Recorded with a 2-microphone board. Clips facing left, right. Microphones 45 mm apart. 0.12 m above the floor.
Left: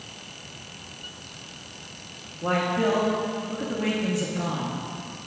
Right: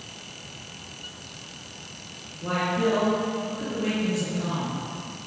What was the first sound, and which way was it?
A man speaking, 40° left (ahead or behind).